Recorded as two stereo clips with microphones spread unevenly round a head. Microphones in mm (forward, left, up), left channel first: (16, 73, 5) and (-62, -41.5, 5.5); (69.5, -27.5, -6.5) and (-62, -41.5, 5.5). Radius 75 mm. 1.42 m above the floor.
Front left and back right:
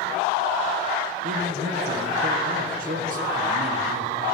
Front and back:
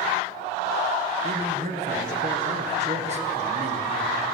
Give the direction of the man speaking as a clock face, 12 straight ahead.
5 o'clock.